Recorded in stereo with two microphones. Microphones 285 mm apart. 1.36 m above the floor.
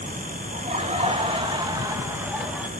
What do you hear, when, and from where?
0.5 s laughter: 25° right (ahead or behind), 3 m; by 2.7 s centre (ahead or behind), 1.8 m